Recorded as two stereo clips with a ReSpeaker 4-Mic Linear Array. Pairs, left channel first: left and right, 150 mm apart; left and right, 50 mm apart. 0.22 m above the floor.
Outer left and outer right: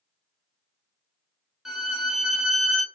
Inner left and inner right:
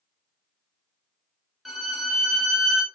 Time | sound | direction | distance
1.6 | a violin | 5° right (ahead or behind) | 0.5 m